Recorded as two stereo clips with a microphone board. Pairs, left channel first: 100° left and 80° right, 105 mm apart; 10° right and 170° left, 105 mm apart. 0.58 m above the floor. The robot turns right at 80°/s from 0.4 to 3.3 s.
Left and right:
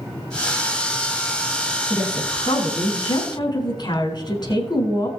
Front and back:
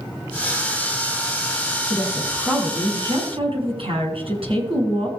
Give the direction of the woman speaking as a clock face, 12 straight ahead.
11 o'clock.